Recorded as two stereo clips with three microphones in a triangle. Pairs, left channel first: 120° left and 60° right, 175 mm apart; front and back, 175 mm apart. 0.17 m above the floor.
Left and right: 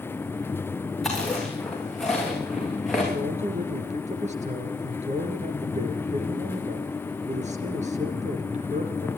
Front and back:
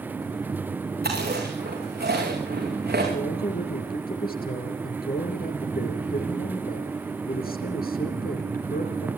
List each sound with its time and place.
1.0 s chewing: 150° right, 8.5 m
3.1 s a man speaking: 15° right, 3.5 m